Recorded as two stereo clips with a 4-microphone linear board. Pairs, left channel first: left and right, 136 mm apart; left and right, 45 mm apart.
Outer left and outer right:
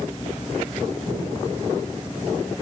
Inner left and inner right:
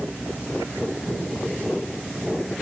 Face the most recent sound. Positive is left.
No sound to turn to.